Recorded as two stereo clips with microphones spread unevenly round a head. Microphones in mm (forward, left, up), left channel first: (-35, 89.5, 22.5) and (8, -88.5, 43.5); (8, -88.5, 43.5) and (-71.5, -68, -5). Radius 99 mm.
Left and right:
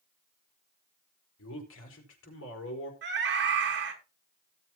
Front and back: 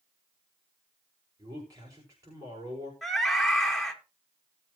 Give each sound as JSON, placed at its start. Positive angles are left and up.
{"t": 1.4, "sound": "a man speaking", "azimuth_deg": 105, "distance_m": 4.5}
{"t": 3.0, "sound": "a scream", "azimuth_deg": -105, "distance_m": 3.0}